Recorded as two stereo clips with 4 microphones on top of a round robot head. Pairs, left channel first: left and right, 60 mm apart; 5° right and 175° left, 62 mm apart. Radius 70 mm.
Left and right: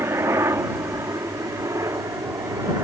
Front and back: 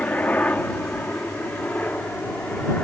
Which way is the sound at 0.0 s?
65° right.